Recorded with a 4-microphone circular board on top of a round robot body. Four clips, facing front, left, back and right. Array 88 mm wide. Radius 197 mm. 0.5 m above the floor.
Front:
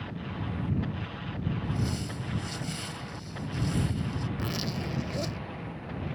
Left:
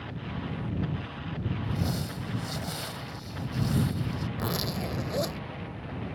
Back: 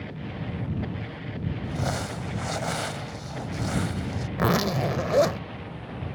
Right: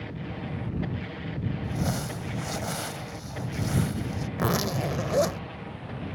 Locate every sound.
1.6 s crumpling: 170° right
4.4 s a zipper: 165° right